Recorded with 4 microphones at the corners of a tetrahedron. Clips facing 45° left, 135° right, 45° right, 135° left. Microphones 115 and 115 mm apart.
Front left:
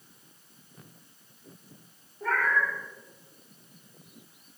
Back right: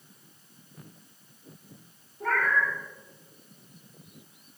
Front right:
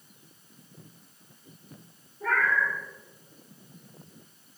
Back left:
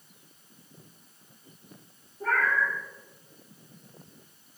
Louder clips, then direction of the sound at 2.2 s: Back right 1 dB, even; 175° right.